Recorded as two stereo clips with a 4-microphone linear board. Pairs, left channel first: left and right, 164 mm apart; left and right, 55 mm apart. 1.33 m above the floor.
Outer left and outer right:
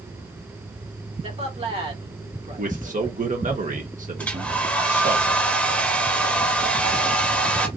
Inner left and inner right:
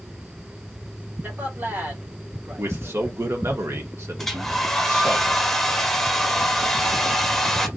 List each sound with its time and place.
1.2 s a man speaking: 35° right (ahead or behind), 1.5 m
2.6 s a man speaking: 55° right (ahead or behind), 1.3 m
4.2 s a hair dryer: 10° left (ahead or behind), 0.7 m